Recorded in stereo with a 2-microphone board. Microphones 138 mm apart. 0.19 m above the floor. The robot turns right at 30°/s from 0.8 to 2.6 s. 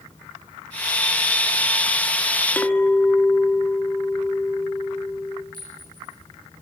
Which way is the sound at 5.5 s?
75° right (ahead or behind).